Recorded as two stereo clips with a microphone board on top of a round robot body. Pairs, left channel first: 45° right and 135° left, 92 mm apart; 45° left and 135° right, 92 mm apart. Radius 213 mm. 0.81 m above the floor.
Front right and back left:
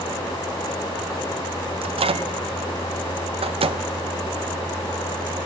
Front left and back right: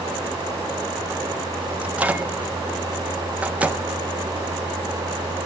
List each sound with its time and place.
1.8 s a microwave: 150° left, 0.7 m